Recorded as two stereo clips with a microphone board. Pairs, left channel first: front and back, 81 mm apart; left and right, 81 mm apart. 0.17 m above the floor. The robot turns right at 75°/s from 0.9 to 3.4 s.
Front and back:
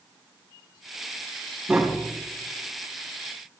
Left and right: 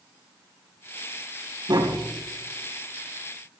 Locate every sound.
1.7 s tapping: 100° right, 3 m; by 2.1 s 70° right, 3 m